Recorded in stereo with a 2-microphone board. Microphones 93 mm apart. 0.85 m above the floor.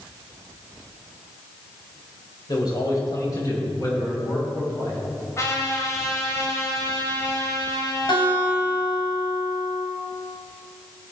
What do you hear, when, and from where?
2.5 s a man speaking: 45° left (ahead or behind), 4 m; by 5.0 s 35° left (ahead or behind), 7.5 m
5.4 s a trumpet: 35° left (ahead or behind), 2.5 m
8.1 s a guitar: 60° left (ahead or behind), 3 m